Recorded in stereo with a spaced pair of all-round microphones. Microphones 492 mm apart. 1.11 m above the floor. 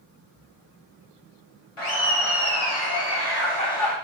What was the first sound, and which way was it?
Laughter, 80° left.